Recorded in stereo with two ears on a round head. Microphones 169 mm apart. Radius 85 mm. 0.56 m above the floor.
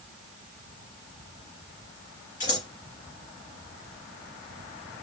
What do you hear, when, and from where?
2.4 s scissors: 45° left (ahead or behind), 2 m